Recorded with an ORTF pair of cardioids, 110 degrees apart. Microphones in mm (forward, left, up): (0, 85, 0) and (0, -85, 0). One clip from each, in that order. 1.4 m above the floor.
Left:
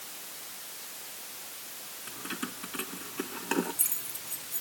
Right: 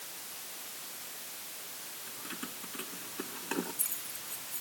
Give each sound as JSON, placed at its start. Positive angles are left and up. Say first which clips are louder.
{"t": 2.1, "sound": "keys jangling", "louder": "left 6 dB", "azimuth_deg": 35}